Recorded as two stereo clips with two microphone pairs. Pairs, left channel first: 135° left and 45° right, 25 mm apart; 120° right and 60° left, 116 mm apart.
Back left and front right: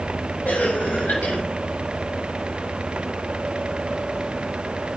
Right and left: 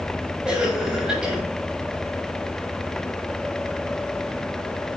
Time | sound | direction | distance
0.5 | a cough | 145° left | 7 m